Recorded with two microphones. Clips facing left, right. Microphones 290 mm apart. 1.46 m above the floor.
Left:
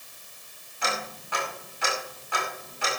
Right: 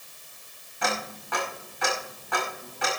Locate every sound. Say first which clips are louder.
0.8 s ticking: right 3 dB; 75° right (ahead or behind), 5 m